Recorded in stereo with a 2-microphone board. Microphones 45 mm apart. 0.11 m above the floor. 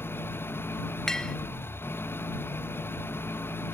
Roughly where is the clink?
Centre.